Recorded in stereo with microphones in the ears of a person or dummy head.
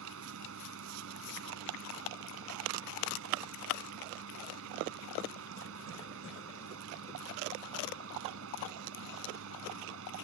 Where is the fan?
70° right (ahead or behind).